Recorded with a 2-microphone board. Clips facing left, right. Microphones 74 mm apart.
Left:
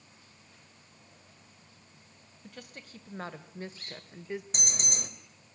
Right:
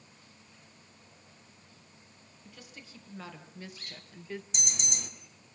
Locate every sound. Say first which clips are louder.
2.4 s a woman speaking: left 4 dB; 50° left (ahead or behind), 2.5 m; by 4.4 s 15° left (ahead or behind), 1.4 m
4.5 s an alarm: left 3 dB; 45° left (ahead or behind), 3 m